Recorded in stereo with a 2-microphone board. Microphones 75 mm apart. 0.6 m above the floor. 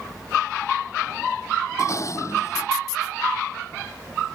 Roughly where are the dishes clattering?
Left.